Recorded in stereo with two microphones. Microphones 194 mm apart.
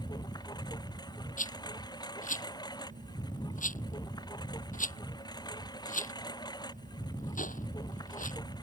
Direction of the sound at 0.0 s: 20° left (ahead or behind).